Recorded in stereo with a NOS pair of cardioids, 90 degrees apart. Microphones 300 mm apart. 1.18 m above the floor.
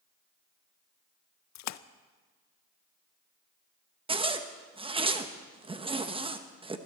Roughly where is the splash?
Ahead left.